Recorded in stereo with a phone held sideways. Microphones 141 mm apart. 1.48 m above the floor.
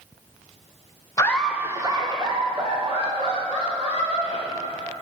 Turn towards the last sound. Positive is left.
turn(degrees=-50)  # may be behind; listen again after turning